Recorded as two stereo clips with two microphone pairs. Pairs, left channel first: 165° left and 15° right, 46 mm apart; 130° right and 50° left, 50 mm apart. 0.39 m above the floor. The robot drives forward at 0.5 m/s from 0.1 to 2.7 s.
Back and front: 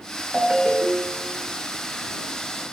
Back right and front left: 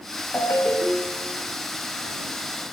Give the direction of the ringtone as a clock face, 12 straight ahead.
3 o'clock.